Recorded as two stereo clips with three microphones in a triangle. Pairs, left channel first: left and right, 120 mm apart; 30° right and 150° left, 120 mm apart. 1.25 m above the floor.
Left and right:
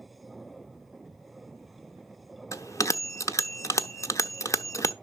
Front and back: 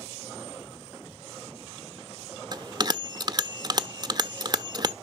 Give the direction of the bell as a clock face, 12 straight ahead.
7 o'clock.